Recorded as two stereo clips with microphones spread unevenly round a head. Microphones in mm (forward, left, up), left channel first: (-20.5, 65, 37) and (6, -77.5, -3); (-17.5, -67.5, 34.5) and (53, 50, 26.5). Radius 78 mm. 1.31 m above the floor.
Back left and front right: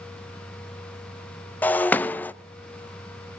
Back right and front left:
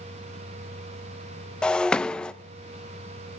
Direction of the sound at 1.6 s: 160° left.